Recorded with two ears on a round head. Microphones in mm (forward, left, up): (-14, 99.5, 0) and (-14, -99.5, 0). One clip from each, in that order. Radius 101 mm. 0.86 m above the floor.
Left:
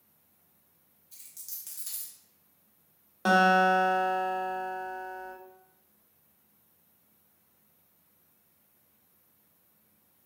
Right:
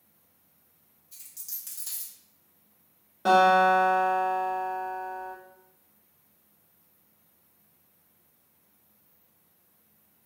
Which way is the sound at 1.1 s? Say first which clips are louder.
Right 3 dB; 5° left (ahead or behind).